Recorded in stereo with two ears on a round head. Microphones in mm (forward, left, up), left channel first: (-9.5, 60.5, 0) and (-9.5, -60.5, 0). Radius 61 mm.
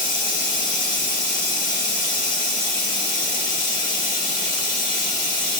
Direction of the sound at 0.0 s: 65° left (ahead or behind).